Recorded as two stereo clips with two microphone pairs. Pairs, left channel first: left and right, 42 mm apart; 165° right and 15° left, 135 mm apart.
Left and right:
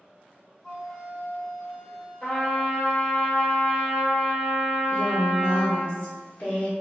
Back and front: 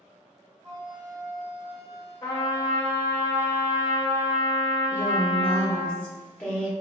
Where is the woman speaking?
115° left, 1.3 m.